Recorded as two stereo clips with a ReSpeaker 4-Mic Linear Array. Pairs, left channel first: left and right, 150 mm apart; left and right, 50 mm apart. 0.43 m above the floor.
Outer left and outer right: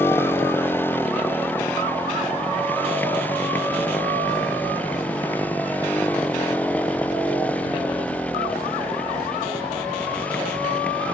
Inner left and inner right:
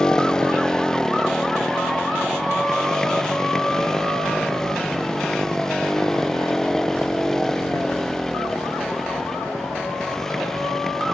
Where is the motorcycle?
15° left (ahead or behind); by 11.1 s 10° left (ahead or behind).